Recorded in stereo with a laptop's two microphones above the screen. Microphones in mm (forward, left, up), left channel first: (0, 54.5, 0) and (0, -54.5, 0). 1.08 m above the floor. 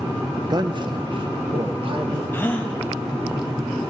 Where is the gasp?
20° left (ahead or behind), 0.7 m.